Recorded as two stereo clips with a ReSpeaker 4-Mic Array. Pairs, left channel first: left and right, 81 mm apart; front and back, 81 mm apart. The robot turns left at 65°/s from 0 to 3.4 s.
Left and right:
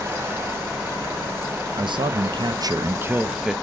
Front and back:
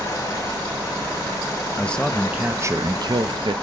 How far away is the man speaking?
About 0.6 m.